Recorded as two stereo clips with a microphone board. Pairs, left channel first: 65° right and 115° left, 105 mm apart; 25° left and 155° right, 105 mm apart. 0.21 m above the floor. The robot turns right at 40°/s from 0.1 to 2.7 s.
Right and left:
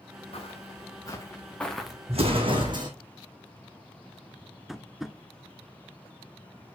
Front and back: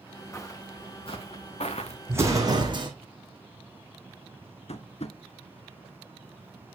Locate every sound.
0.3 s footsteps: 40° right, 2 m; by 2.0 s 30° left, 1.1 m
2.1 s an explosion: 135° left, 2 m; by 2.9 s 160° left, 2 m
4.7 s tapping: 25° left, 0.6 m